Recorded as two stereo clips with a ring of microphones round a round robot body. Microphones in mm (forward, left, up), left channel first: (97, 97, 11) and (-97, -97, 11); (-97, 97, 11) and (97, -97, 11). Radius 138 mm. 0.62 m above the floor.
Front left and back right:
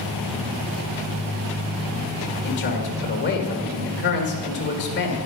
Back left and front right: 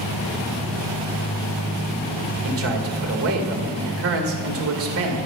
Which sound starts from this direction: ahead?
A man speaking, at 2.4 s.